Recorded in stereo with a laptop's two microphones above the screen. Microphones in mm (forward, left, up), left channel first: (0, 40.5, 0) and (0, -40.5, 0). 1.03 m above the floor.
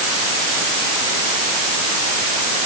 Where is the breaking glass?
I don't hear breaking glass.